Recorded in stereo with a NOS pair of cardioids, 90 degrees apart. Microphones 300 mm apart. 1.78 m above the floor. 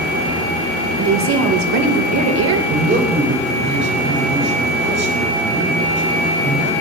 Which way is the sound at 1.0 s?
65° right.